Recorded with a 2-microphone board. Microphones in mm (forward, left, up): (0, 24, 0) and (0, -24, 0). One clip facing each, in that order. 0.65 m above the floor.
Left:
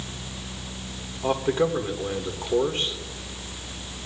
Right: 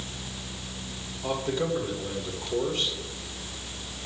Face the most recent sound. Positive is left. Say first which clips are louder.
# left 5 dB
turn(degrees=40)  # may be behind; listen again after turning